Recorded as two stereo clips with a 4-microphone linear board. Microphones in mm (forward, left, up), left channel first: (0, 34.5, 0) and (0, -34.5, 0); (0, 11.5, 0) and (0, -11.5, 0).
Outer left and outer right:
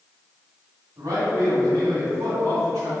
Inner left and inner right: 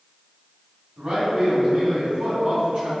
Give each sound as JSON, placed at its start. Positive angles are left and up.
{"t": 1.0, "sound": "a man speaking", "side_deg": -70, "distance_m": 1.3}